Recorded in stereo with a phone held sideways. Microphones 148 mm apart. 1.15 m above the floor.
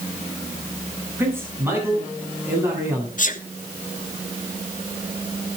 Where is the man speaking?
15° right (ahead or behind), 9 m.